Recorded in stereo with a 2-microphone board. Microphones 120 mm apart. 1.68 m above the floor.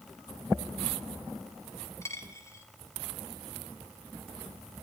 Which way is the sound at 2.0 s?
25° left (ahead or behind).